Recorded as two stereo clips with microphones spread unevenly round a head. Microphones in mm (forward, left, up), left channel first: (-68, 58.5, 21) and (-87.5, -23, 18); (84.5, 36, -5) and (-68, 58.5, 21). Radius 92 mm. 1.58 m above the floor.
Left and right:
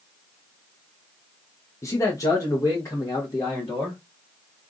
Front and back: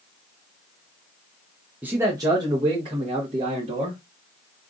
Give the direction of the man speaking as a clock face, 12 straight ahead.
8 o'clock.